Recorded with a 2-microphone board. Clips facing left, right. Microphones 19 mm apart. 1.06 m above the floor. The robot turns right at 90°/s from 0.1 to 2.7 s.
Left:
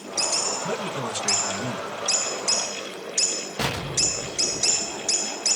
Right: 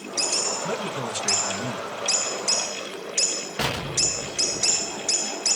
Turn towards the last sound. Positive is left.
turn(degrees=-60)  # may be behind; listen again after turning